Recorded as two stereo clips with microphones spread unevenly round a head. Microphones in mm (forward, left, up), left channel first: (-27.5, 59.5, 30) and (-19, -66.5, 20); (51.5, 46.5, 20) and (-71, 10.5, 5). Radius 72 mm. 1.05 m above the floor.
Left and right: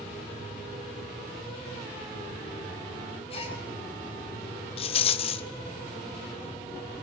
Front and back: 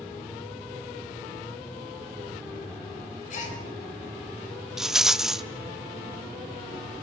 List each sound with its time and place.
3.3 s a gasp: 40° left, 3.5 m
4.8 s a rattle: 105° left, 0.6 m